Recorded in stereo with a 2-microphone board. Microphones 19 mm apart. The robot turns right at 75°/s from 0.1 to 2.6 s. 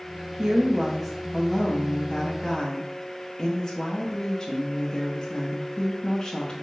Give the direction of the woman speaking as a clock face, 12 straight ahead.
2 o'clock.